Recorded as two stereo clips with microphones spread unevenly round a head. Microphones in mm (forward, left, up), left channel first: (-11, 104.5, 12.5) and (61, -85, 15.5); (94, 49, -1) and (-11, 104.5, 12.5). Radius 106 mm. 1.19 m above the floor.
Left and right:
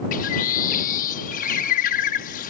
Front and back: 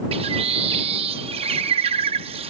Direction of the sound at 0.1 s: 155° left.